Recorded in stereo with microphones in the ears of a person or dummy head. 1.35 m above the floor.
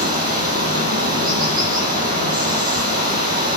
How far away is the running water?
About 6 m.